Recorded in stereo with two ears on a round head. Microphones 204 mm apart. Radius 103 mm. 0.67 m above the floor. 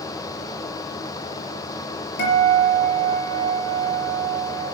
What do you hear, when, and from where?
2.2 s a guitar: 45° left (ahead or behind), 4.5 m